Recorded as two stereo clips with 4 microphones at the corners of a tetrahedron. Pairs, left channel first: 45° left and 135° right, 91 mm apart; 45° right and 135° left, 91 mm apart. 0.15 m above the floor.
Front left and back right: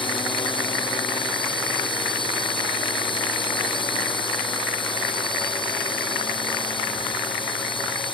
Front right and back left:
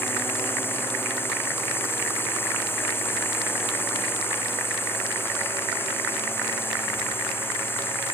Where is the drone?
20° left.